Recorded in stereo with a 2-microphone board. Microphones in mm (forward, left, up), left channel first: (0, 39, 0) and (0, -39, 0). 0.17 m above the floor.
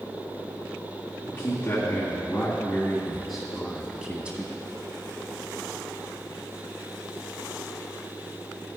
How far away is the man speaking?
About 2 m.